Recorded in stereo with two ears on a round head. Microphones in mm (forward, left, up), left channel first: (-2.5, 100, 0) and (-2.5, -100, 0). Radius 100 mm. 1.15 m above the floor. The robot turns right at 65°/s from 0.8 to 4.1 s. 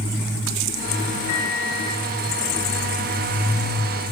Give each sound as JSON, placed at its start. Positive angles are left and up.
{"t": 1.3, "sound": "a microwave", "azimuth_deg": 115, "distance_m": 3.0}